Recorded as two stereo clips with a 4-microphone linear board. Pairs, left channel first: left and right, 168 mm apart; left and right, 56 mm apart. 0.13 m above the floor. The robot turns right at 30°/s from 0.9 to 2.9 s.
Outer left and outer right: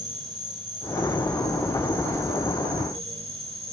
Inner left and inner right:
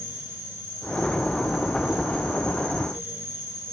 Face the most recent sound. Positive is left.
turn(degrees=-140)